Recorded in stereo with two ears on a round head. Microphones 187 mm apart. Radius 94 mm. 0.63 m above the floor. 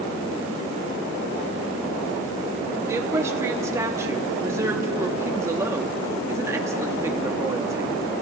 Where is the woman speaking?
15° right (ahead or behind), 0.9 m.